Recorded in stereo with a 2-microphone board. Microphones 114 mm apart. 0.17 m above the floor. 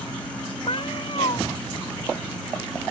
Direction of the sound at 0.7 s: 50° left (ahead or behind).